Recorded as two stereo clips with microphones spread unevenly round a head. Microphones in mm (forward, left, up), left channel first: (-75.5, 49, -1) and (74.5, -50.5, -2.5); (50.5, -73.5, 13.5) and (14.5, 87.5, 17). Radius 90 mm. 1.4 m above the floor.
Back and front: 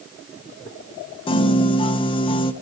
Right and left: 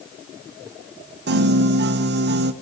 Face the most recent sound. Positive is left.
turn(degrees=85)